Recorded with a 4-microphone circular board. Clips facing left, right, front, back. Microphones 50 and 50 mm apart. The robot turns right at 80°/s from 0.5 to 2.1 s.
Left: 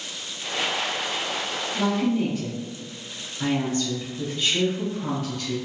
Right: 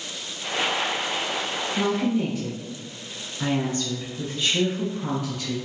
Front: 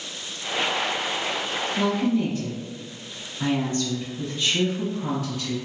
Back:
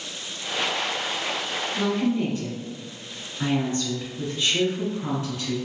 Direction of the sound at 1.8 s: 150° left.